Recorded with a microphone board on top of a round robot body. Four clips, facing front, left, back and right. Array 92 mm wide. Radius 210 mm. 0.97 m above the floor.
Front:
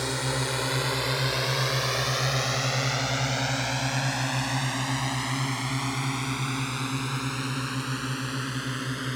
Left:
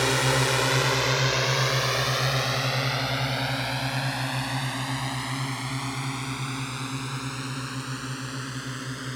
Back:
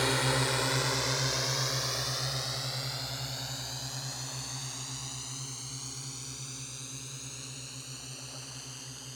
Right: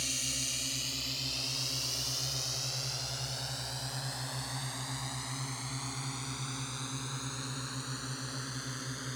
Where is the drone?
95° left; by 9.2 s 25° left.